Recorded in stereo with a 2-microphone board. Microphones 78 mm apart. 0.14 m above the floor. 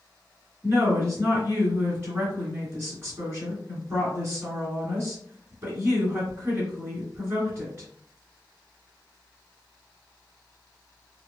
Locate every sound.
0.6 s a woman speaking: 25° right (ahead or behind), 2.0 m